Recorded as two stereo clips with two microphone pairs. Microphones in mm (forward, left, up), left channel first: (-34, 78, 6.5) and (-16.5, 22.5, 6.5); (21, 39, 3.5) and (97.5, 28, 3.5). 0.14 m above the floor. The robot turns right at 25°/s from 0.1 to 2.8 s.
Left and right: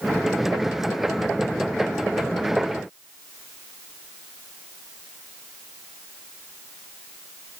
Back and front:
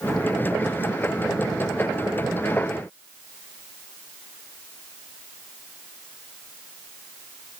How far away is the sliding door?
No sliding door in this recording.